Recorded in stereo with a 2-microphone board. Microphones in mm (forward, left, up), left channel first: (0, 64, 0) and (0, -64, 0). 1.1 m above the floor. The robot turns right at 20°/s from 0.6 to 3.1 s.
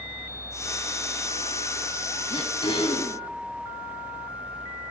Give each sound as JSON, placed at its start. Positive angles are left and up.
{"t": 2.3, "sound": "throat clearing", "side_deg": 40, "distance_m": 1.2}